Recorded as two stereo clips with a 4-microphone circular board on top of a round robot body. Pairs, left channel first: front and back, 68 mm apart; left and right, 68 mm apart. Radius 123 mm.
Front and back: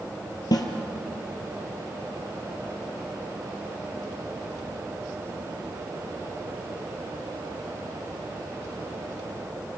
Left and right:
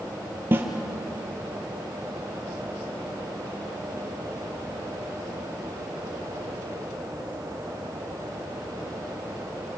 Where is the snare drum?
30° right, 2.5 m.